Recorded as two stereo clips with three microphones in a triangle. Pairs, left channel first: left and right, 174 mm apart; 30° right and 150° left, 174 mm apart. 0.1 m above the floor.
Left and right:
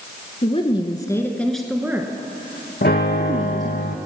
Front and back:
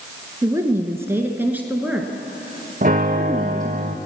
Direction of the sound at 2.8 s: 110° left.